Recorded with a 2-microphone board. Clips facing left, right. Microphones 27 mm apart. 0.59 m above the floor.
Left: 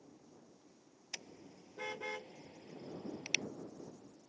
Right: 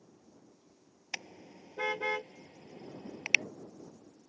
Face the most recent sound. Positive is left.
turn(degrees=-40)  # may be behind; listen again after turning